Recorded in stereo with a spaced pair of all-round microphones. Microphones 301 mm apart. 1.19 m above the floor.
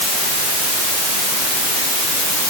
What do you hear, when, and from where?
Only background noise.